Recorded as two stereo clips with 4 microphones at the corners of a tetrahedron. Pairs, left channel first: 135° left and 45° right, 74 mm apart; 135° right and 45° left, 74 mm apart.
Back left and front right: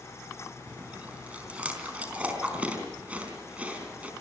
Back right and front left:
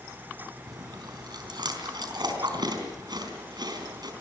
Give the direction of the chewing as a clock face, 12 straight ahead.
11 o'clock.